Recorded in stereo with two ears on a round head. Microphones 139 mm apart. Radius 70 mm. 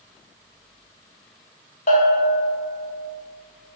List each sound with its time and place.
1.9 s a bell: 50° left (ahead or behind), 1.0 m